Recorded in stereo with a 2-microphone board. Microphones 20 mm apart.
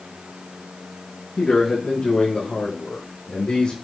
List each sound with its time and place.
1.4 s a man speaking: 60° left (ahead or behind), 6.5 m; by 3.8 s 65° left (ahead or behind), 5.5 m